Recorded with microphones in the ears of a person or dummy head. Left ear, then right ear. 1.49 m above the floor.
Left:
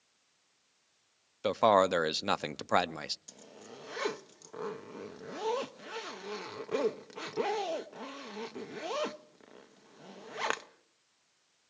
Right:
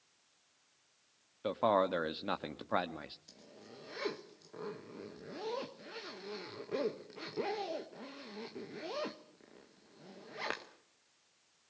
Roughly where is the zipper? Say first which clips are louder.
Left 4 dB; left.